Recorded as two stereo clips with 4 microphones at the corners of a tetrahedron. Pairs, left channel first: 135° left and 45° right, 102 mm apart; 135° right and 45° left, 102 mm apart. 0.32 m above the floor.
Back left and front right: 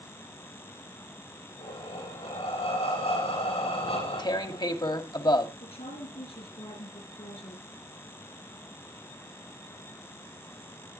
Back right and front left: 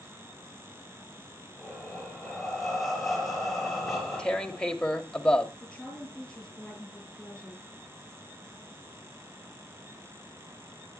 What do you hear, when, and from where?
1.6 s breathing: 135° left, 6.5 m
3.9 s tearing paper: 145° left, 1.2 m
5.6 s a woman speaking: 145° left, 8 m